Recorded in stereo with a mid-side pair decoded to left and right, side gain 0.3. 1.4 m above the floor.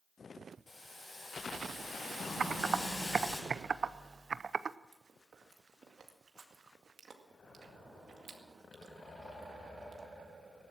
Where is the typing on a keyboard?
55° right, 0.5 m.